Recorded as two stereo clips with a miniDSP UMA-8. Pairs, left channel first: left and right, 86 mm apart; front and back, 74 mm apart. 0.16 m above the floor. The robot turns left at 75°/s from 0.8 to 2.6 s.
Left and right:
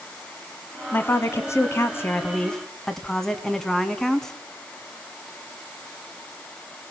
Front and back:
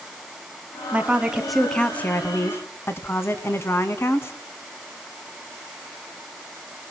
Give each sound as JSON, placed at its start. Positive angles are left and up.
{"t": 0.9, "sound": "a woman speaking", "azimuth_deg": 140, "distance_m": 1.3}